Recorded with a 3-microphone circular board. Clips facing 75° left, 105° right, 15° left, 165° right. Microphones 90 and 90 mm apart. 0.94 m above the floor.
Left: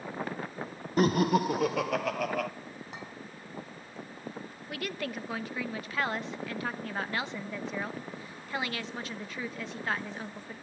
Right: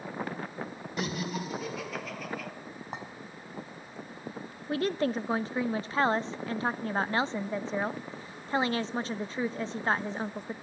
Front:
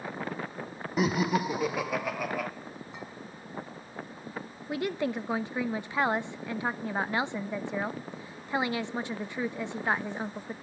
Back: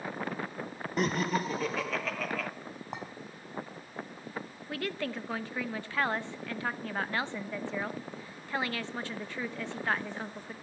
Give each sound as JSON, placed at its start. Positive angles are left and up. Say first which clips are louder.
{"t": 1.0, "sound": "laughter", "louder": "left 10 dB, front 3 dB", "azimuth_deg": 95, "distance_m": 0.8}
{"t": 2.9, "sound": "a clink", "louder": "right 5 dB, back 5 dB", "azimuth_deg": -155, "distance_m": 5.5}
{"t": 4.7, "sound": "a woman speaking", "louder": "right 8 dB, front 5 dB", "azimuth_deg": -50, "distance_m": 0.7}